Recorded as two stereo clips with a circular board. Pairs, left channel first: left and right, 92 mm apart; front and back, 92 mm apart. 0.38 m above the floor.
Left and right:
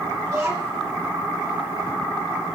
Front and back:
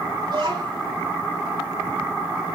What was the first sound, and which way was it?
A child speaking, 150° right.